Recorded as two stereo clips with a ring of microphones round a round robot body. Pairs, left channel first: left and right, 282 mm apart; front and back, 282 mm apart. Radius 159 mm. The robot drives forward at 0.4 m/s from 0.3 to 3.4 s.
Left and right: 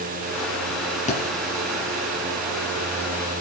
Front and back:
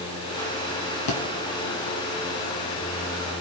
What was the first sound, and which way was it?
A thud, 25° left.